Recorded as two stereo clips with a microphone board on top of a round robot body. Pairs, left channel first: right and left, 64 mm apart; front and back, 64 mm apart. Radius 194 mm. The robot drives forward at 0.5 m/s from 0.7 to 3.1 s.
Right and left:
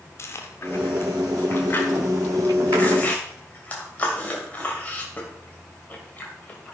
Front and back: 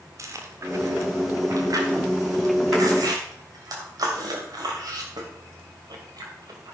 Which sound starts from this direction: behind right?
Chewing, at 0.2 s.